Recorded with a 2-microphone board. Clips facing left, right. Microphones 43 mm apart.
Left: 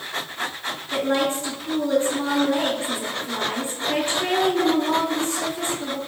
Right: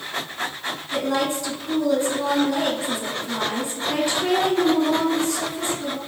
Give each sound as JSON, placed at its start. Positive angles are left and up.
{"t": 0.9, "sound": "a woman speaking", "side_deg": 40, "distance_m": 2.5}